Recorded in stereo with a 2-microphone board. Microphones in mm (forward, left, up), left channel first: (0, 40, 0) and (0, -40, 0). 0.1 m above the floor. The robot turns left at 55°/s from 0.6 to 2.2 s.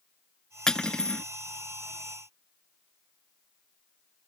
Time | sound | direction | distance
0.7 | cutlery clinking | 10° left (ahead or behind) | ?